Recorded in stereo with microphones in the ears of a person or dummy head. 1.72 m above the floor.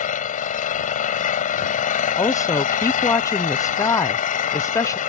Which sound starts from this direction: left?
An engine running, at 0.0 s.